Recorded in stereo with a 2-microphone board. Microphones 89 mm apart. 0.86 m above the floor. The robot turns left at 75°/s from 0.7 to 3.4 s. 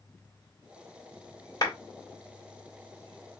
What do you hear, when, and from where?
1.6 s a clap: 45° left (ahead or behind), 1.7 m; by 1.7 s 55° left (ahead or behind), 1.7 m